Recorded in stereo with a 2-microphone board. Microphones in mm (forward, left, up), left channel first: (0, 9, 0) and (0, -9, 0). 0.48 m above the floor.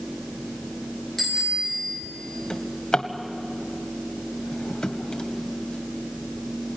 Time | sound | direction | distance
1.2 | a bicycle bell | 15° left (ahead or behind) | 6 m
2.5 | a drawer | 70° left (ahead or behind) | 1.5 m